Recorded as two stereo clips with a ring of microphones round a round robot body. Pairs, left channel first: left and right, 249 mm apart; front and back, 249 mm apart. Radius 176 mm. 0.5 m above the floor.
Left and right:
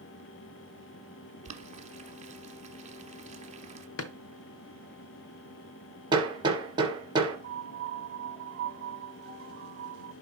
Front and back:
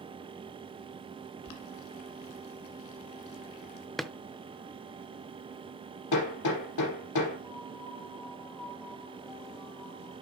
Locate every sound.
1.4 s boiling: 25° right, 1.4 m
4.0 s a drawer: 90° left, 0.7 m
6.1 s hammering: 15° right, 2.5 m
7.4 s a piano: 75° right, 1.0 m